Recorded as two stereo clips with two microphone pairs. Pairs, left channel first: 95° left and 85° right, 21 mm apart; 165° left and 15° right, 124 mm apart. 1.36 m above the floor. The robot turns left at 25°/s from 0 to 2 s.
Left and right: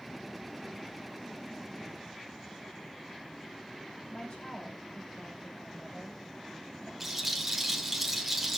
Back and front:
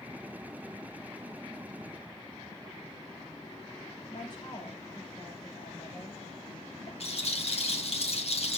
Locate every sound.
4.1 s a woman speaking: 120° left, 4.5 m
7.0 s a rattle: 165° right, 1.6 m